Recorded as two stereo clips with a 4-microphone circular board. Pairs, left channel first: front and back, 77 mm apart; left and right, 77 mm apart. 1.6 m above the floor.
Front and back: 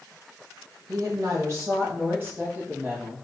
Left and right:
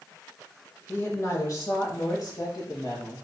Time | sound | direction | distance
0.9 | a woman speaking | 145° left | 0.9 m